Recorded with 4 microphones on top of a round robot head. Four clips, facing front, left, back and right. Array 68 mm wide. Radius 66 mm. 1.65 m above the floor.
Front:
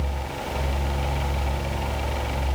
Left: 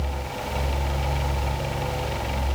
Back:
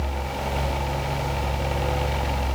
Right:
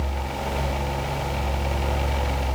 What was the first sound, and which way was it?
Only background noise.